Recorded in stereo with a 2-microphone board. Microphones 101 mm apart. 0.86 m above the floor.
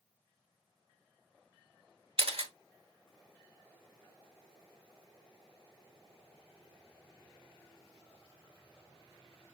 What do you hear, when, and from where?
2.2 s a camera shutter: 65° right (ahead or behind), 0.9 m